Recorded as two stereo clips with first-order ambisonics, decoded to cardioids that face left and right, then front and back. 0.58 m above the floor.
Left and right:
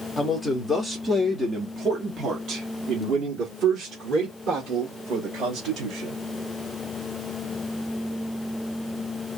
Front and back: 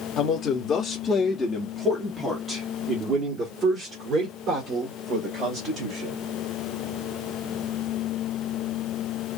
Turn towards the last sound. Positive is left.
turn(degrees=-130)